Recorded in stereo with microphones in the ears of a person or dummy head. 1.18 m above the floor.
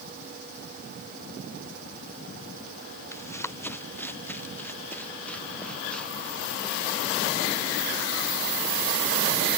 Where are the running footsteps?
10° left (ahead or behind); by 7.3 s centre (ahead or behind).